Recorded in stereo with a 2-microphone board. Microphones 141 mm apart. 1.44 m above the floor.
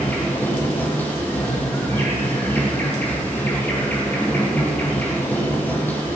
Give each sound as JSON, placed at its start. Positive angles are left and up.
{"t": 0.0, "sound": "an insect", "side_deg": 15, "distance_m": 3.5}